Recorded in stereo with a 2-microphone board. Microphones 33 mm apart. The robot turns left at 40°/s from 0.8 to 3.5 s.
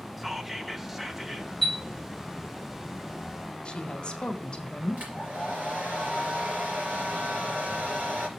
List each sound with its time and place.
0.2 s whispering: 10° right (ahead or behind), 0.8 m; by 1.5 s 20° right (ahead or behind), 0.8 m
1.6 s a chime: 10° left (ahead or behind), 1.8 m; by 1.8 s 5° left (ahead or behind), 1.8 m
3.6 s a woman speaking: 30° left (ahead or behind), 1.1 m
5.0 s a hair dryer: 75° right (ahead or behind), 3 m